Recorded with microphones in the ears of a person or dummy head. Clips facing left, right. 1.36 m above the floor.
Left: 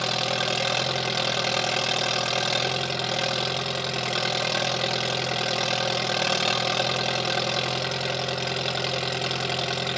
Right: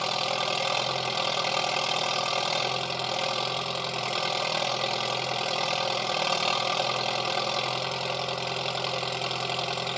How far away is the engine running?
About 0.7 m.